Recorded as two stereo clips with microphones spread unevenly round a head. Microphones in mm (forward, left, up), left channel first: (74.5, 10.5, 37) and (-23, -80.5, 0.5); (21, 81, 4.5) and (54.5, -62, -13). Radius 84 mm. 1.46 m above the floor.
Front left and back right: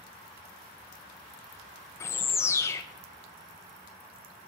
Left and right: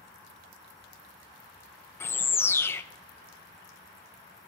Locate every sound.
2.0 s a bird: 55° left, 0.6 m